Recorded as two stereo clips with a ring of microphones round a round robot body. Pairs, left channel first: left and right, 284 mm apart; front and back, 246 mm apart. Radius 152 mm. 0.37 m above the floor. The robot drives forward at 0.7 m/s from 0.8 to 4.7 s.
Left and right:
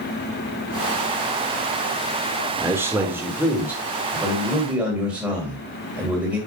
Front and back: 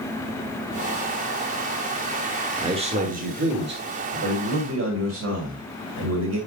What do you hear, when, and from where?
2.6 s a man speaking: 155° right, 1.3 m; by 6.4 s 175° right, 2 m